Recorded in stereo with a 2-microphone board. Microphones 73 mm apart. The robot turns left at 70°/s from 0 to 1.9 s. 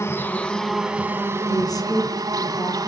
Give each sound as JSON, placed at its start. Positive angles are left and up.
{"t": 0.0, "sound": "an insect", "azimuth_deg": 55, "distance_m": 1.8}
{"t": 1.5, "sound": "a woman speaking", "azimuth_deg": 100, "distance_m": 3.5}